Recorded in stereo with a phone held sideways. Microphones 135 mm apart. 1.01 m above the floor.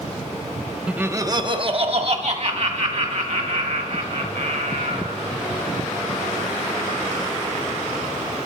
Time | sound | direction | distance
0.9 | laughter | 5° right (ahead or behind) | 0.6 m